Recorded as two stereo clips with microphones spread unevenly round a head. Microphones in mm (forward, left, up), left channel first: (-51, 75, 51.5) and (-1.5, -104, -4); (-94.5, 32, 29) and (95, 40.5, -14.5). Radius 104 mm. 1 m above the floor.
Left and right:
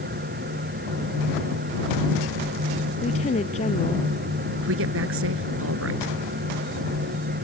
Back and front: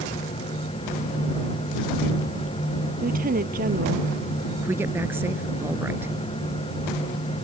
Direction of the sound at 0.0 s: 110° right.